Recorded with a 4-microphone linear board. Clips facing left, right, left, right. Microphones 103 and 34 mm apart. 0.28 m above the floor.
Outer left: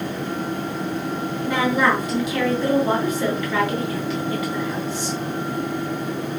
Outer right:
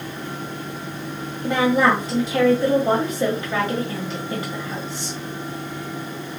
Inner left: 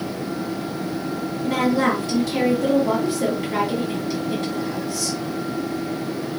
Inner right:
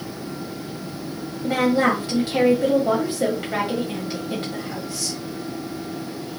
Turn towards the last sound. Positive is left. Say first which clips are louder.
# outer right 2 dB, inner right 1 dB
turn(degrees=-35)  # may be behind; listen again after turning